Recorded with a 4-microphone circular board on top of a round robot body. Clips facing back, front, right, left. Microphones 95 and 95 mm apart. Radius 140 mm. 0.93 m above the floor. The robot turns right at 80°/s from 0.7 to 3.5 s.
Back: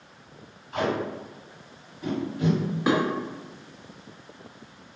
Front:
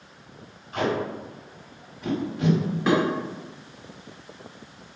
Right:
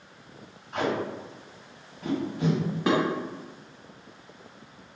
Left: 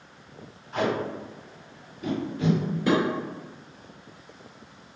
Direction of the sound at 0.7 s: 165° left.